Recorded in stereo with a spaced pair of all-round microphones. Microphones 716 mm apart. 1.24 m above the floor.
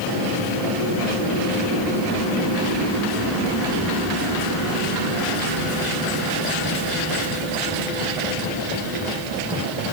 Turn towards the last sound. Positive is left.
No sound to turn to.